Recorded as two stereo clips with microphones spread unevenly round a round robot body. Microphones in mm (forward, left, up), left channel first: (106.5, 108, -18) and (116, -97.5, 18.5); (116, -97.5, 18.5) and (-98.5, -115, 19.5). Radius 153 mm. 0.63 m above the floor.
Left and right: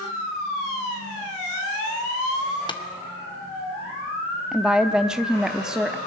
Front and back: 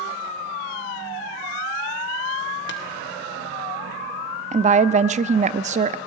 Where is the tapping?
35° left, 2 m.